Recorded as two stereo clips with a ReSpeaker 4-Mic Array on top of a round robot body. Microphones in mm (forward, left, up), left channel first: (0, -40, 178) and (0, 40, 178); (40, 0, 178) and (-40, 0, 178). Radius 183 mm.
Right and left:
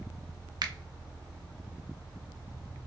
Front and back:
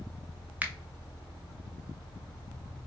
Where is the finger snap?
115° left, 0.7 m.